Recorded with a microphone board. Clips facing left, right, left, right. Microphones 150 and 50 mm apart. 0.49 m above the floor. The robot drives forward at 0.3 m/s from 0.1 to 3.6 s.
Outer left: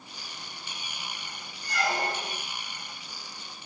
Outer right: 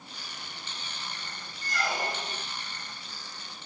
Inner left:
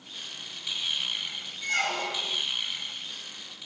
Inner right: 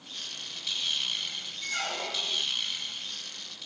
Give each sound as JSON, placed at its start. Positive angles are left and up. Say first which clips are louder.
{"t": 1.6, "sound": "a squeak", "louder": "outer left 3 dB, inner left 5 dB", "side_deg": 75, "distance_m": 1.3}